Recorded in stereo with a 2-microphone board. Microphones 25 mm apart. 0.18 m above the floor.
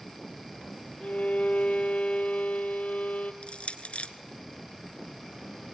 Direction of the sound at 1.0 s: 70° left (ahead or behind).